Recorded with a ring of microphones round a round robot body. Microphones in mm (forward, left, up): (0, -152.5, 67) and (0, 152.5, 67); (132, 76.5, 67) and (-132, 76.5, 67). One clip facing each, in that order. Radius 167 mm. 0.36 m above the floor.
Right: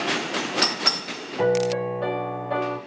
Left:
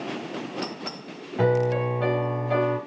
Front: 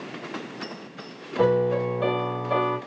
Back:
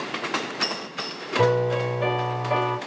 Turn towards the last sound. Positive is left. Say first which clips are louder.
# right 1 dB, front 1 dB
turn(degrees=135)